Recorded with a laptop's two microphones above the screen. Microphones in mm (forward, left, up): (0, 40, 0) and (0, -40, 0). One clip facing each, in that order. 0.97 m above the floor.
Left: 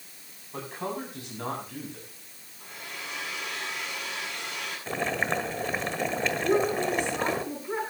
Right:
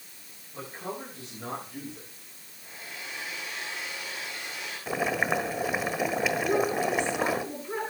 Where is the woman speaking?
15° left (ahead or behind), 8.5 m.